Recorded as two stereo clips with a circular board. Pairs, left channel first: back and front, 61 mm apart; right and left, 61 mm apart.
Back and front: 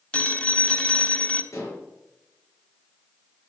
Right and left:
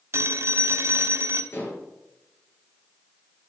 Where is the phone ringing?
115° left, 1.0 m.